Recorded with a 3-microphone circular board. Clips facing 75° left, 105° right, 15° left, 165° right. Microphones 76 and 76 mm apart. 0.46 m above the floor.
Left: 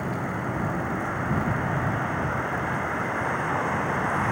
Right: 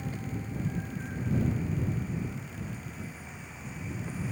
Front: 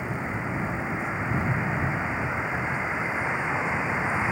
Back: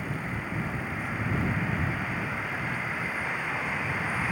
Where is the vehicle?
80° left.